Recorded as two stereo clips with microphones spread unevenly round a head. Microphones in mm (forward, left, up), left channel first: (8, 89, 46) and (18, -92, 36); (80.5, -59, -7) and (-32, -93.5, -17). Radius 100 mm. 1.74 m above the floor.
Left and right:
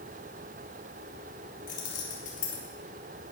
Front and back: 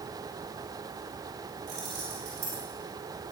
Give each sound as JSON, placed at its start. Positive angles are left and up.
{"t": 1.7, "sound": "keys jangling", "azimuth_deg": 140, "distance_m": 4.0}